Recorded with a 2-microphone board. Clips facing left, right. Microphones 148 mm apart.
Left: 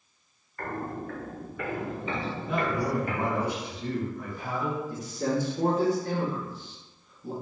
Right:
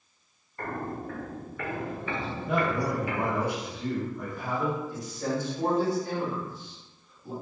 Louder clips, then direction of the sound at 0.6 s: Even; 25° right (ahead or behind).